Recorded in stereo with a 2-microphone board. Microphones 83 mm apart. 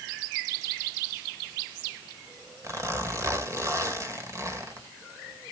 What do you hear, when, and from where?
2.6 s a zipper: 40° right (ahead or behind), 1.8 m